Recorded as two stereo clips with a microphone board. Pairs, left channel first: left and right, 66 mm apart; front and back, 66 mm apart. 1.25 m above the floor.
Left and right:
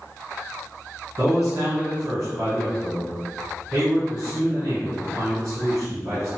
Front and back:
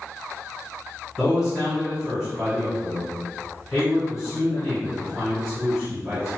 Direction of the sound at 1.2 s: 100° right.